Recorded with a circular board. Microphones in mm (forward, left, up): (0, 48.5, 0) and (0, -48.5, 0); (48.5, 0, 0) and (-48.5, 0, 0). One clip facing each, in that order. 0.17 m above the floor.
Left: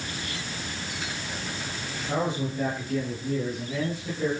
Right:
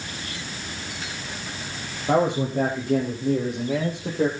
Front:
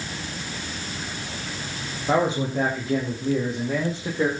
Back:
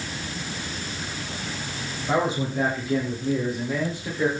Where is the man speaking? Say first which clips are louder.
Right 7 dB, front 2 dB; 65° right, 5.5 m.